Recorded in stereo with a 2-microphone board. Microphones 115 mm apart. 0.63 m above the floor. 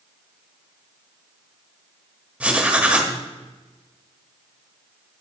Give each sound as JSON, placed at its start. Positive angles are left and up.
{"t": 2.4, "sound": "writing", "side_deg": -10, "distance_m": 0.8}